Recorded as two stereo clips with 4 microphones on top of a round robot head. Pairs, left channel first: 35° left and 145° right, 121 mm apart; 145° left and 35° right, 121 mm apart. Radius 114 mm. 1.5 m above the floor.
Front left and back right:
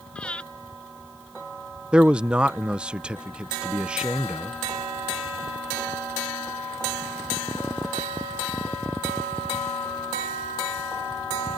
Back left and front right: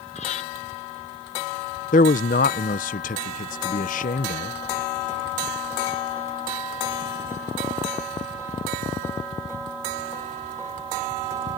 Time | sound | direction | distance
0.1 | breathing | 115° left | ?
1.9 | a man speaking | 130° left | ?